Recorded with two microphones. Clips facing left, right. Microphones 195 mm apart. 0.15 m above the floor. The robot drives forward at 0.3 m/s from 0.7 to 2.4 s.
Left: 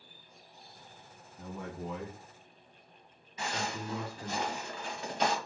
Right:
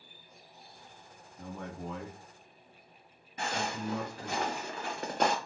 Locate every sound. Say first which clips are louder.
1.4 s a man speaking: left 1 dB; 5° left (ahead or behind), 1.2 m; by 4.4 s 10° left (ahead or behind), 1.1 m
3.4 s footsteps: right 2 dB; 60° right (ahead or behind), 1.1 m; by 5.3 s 55° right (ahead or behind), 1.0 m